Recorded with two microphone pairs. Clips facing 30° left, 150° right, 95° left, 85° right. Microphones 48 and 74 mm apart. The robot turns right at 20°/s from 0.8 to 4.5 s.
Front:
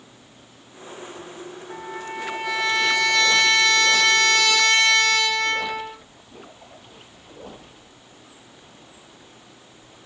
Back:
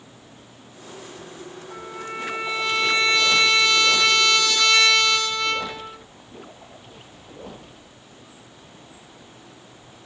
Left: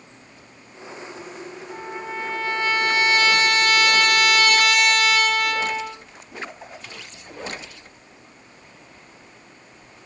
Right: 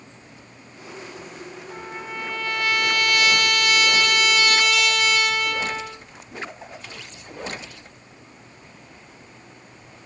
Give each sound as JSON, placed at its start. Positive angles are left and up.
{"t": 1.7, "sound": "a trumpet", "azimuth_deg": 10, "distance_m": 1.1}